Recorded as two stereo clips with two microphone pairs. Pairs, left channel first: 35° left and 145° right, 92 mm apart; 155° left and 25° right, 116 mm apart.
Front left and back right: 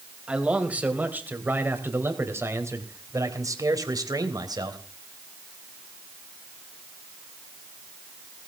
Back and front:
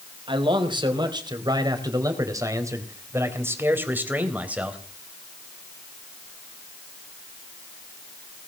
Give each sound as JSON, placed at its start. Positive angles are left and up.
{"t": 0.3, "sound": "a man speaking", "azimuth_deg": -65, "distance_m": 4.0}